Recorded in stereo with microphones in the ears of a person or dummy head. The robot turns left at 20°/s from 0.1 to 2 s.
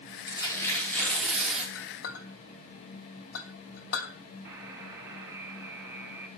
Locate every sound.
0.3 s tearing paper: 25° left (ahead or behind), 3 m; by 1.6 s 5° right (ahead or behind), 3 m
1.8 s a clink: 75° left (ahead or behind), 2.5 m
4.5 s a buzzer: 20° right (ahead or behind), 2.5 m